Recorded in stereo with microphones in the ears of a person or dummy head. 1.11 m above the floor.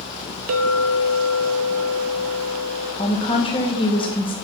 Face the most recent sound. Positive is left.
turn(degrees=25)  # may be behind; listen again after turning